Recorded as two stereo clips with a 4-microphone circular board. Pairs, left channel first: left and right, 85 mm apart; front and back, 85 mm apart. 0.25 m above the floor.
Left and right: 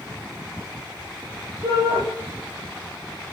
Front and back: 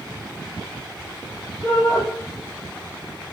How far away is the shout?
About 8 m.